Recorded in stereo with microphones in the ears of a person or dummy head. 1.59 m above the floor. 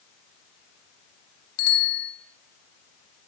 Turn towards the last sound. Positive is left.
turn(degrees=55)  # may be behind; listen again after turning